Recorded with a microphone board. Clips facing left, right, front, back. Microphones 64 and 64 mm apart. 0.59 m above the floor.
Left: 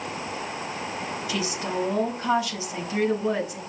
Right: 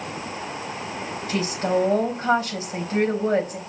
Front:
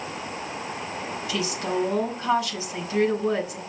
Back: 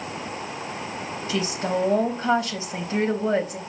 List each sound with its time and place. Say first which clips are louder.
1.3 s a woman speaking: right 7 dB, back 2 dB; 130° right, 3.5 m